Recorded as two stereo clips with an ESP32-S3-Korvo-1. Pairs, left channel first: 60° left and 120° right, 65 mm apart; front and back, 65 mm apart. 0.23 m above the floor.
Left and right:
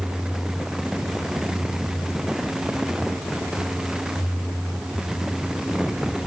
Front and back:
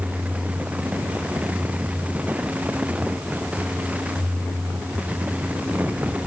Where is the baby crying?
I don't hear a baby crying.